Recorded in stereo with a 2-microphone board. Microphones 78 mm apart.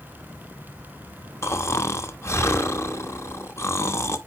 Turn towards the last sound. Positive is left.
turn(degrees=35)  # may be behind; listen again after turning